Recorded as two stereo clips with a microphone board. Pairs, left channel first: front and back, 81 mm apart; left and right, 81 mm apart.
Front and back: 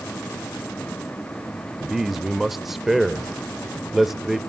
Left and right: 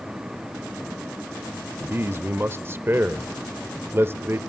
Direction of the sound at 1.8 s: 95° right.